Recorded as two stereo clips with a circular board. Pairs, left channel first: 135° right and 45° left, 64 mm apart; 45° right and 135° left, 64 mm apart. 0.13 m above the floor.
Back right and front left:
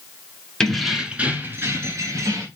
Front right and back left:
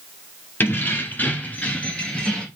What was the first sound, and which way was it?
Keys jangling, 65° right.